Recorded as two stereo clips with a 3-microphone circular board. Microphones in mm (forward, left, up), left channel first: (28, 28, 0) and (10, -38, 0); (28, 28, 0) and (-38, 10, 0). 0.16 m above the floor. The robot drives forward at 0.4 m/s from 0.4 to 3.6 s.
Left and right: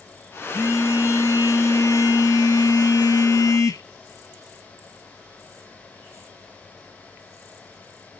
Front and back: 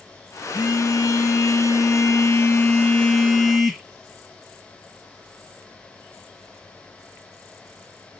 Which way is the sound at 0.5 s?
35° left.